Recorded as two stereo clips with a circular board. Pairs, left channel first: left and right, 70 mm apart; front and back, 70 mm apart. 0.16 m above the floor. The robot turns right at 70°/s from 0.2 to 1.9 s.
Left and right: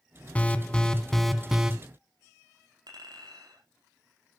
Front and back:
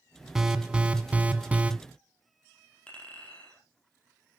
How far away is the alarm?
About 1.0 m.